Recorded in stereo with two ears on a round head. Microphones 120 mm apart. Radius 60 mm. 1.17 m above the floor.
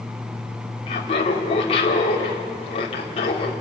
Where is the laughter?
45° left (ahead or behind), 3 m.